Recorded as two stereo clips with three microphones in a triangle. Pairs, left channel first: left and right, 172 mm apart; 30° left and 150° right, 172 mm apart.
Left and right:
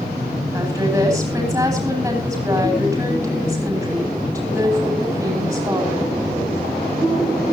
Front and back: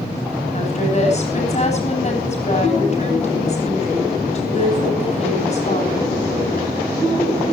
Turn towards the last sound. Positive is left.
turn(degrees=-15)